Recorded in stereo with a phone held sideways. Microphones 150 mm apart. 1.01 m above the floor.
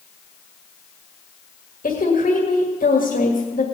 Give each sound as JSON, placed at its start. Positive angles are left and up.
{"t": 1.8, "sound": "a woman speaking", "side_deg": 70, "distance_m": 1.9}